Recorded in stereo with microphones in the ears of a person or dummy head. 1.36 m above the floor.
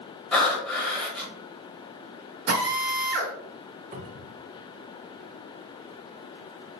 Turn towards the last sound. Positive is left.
turn(degrees=-40)  # may be behind; listen again after turning